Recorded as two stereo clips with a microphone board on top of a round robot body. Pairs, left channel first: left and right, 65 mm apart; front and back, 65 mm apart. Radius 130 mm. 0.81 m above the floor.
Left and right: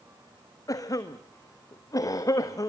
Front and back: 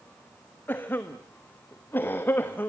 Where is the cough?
60° left, 1.4 m.